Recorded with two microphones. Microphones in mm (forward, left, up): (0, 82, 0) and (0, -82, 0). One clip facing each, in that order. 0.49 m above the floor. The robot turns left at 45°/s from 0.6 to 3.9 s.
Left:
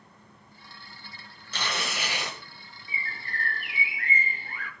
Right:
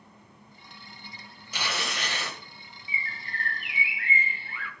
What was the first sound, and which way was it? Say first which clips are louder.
Tearing paper: left 1 dB; 165° right.